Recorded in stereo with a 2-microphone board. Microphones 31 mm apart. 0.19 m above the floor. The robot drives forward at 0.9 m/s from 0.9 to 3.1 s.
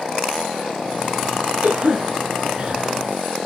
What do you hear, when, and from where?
1.6 s a cough: 50° right (ahead or behind), 1.5 m; by 2.9 s 35° right (ahead or behind), 2 m